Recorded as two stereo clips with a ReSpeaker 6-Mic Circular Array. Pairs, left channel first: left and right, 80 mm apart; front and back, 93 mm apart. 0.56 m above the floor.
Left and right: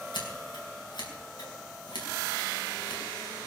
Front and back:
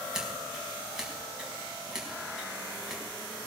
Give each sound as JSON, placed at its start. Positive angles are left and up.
{"t": 0.1, "sound": "scissors", "azimuth_deg": 95, "distance_m": 5.0}